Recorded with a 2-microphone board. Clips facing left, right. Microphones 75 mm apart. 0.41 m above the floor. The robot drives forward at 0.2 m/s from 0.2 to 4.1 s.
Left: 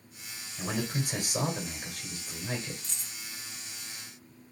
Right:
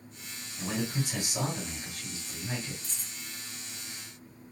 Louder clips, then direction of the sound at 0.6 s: Even; 45° left (ahead or behind).